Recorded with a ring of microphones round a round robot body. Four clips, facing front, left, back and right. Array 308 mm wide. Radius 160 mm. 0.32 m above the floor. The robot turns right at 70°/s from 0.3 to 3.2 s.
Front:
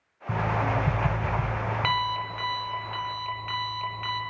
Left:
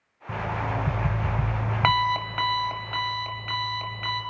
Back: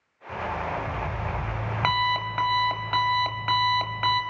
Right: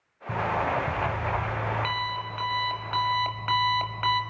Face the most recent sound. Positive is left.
turn(degrees=-160)